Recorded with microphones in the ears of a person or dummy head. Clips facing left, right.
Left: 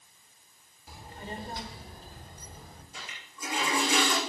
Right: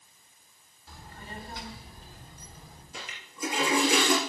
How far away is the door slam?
I don't hear a door slam.